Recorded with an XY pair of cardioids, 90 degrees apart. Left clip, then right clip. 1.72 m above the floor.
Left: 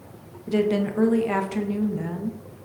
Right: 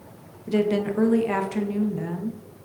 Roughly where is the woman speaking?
Ahead.